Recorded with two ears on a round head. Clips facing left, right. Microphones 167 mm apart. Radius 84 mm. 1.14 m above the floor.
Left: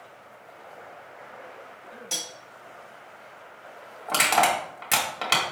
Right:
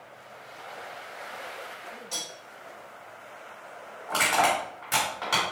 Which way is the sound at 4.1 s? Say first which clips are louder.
Left 2 dB; 85° left.